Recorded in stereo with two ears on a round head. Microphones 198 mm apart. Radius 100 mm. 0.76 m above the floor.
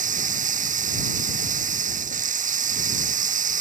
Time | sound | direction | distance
0.0 | running water | 40° right (ahead or behind) | ?